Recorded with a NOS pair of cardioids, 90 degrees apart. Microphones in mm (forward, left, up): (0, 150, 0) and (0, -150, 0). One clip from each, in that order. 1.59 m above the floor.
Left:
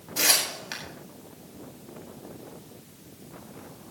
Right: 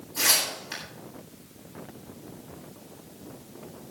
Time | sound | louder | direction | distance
0.2 | tearing paper | even | 50° left | 8 m